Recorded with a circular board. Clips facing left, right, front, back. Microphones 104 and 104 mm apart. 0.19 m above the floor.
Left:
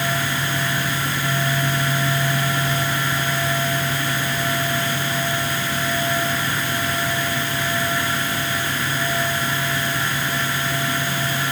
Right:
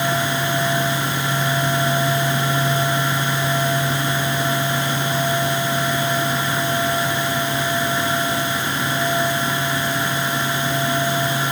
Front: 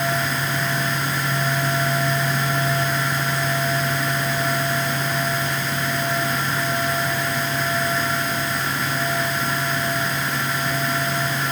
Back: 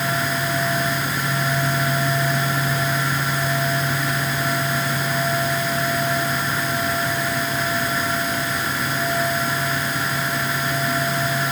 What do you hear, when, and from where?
Only background noise.